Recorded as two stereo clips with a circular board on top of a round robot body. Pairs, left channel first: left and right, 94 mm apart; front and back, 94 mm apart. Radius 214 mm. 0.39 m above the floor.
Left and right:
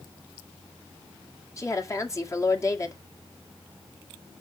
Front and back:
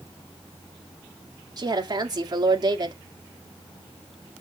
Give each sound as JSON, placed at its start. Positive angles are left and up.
{"t": 1.6, "sound": "a woman speaking", "azimuth_deg": 145, "distance_m": 2.0}